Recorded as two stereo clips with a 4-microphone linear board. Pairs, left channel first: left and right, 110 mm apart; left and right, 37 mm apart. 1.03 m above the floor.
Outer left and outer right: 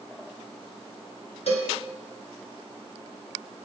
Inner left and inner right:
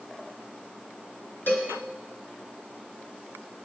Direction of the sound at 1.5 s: 70° left (ahead or behind).